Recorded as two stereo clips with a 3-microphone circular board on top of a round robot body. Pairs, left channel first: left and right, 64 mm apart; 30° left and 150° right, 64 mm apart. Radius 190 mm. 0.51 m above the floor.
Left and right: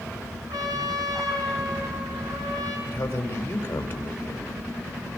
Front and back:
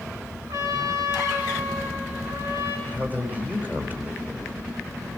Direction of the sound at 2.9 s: 145° left.